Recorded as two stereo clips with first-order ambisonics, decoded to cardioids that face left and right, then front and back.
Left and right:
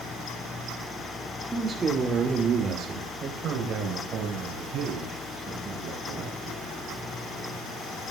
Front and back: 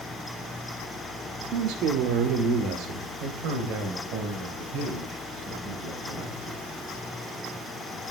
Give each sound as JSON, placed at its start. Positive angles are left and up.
{"t": 1.5, "sound": "a man speaking", "azimuth_deg": -170, "distance_m": 1.2}